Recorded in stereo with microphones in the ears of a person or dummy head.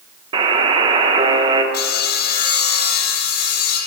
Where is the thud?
No thud in this recording.